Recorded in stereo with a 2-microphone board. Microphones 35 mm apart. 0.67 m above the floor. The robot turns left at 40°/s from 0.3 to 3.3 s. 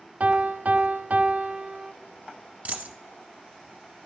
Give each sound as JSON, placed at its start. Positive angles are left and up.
{"t": 0.2, "sound": "a piano", "azimuth_deg": -70, "distance_m": 0.7}
{"t": 2.6, "sound": "a dropped coin", "side_deg": -45, "distance_m": 0.9}